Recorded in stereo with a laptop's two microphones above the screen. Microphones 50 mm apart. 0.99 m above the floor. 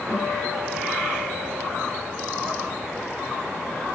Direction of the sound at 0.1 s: 55° right (ahead or behind).